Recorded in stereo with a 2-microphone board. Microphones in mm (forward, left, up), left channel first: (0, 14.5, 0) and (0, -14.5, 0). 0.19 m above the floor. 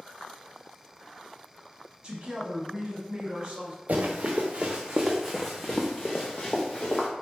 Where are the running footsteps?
60° right (ahead or behind), 1.2 m; by 7.1 s 45° left (ahead or behind), 1.6 m.